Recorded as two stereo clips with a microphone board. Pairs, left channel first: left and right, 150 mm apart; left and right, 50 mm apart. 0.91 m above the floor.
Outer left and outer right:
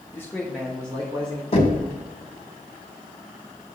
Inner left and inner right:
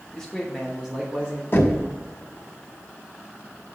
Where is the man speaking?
15° left (ahead or behind), 1.2 m; by 1.4 s 45° right (ahead or behind), 1.3 m.